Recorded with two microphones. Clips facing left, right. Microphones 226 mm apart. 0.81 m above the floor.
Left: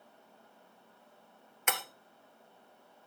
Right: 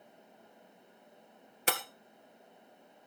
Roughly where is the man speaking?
I don't hear a man speaking.